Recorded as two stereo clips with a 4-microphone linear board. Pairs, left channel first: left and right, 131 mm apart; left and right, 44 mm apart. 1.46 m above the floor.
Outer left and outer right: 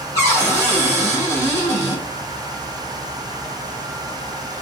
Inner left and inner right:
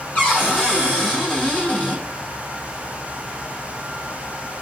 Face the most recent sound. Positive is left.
turn(degrees=25)  # may be behind; listen again after turning